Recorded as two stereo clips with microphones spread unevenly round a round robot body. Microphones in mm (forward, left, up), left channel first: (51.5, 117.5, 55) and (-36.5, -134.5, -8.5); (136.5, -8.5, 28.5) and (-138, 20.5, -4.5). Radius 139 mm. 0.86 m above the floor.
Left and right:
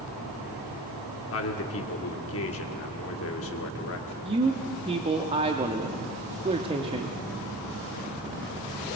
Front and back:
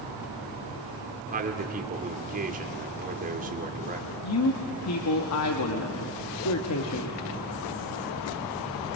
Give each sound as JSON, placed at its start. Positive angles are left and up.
{"t": 1.3, "sound": "a man speaking", "azimuth_deg": 115, "distance_m": 2.5}
{"t": 4.2, "sound": "a man speaking", "azimuth_deg": -45, "distance_m": 1.4}